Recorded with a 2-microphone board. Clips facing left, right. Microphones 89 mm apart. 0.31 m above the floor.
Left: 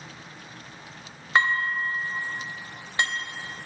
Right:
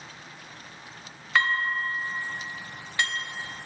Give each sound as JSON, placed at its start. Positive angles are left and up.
{"t": 1.4, "sound": "dishes clattering", "side_deg": 25, "distance_m": 0.8}